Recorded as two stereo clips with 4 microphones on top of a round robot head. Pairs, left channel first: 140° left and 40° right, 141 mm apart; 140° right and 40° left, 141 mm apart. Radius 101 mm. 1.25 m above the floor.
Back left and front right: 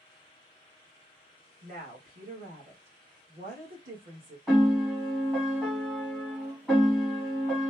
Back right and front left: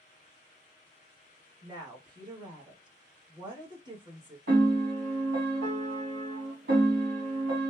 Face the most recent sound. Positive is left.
turn(degrees=45)